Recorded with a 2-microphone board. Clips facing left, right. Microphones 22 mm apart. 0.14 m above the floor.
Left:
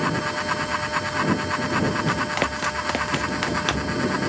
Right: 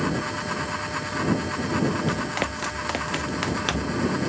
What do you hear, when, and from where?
2.1 s running footsteps: 10° left (ahead or behind); by 4.0 s 5° left (ahead or behind)